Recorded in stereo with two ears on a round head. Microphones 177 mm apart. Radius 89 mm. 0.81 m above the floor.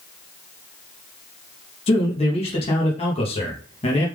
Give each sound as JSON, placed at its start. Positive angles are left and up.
{"t": 1.9, "sound": "a man speaking", "side_deg": 30, "distance_m": 0.8}